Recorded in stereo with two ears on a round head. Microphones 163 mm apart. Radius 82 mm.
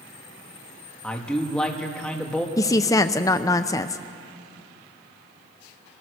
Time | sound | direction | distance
1.0 | a man speaking | 5° left (ahead or behind) | 2 m
2.6 | a woman speaking | 20° left (ahead or behind) | 0.5 m